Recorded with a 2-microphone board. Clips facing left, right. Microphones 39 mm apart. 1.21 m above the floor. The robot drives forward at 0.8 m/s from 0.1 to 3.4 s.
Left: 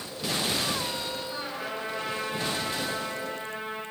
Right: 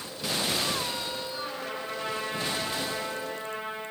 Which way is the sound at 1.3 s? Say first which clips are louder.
Left 1 dB; 35° left (ahead or behind).